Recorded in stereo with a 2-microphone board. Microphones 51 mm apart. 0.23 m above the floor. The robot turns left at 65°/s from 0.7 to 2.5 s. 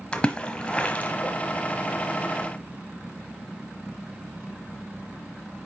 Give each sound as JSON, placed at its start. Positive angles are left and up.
{"t": 0.1, "sound": "a splash", "side_deg": 20, "distance_m": 1.1}